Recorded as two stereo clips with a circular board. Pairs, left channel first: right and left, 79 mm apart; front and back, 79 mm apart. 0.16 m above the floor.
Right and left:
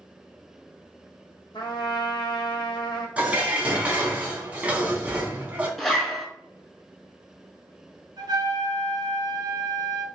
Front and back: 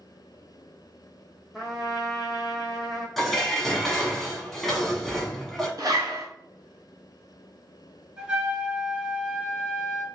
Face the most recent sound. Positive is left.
turn(degrees=105)